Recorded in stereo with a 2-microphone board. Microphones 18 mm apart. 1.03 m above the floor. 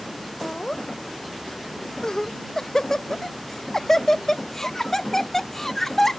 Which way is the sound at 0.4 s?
40° left (ahead or behind).